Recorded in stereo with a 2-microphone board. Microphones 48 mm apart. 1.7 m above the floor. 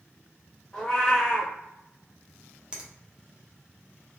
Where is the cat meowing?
10° left (ahead or behind), 0.9 m.